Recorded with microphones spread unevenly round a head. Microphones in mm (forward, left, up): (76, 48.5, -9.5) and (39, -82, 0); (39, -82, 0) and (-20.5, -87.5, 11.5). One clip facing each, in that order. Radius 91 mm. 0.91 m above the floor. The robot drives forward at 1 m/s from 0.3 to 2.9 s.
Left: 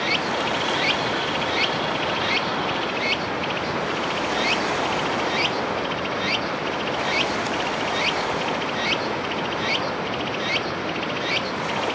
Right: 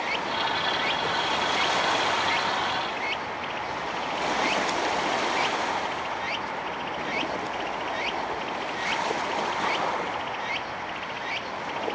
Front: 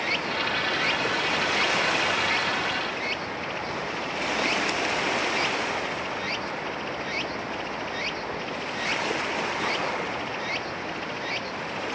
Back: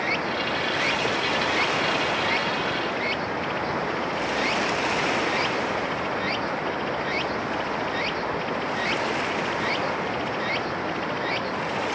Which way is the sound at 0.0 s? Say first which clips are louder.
Left 4 dB, back 2 dB; 105° left.